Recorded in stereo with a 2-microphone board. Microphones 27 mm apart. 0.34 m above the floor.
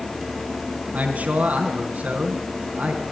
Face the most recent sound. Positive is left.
turn(degrees=-70)  # may be behind; listen again after turning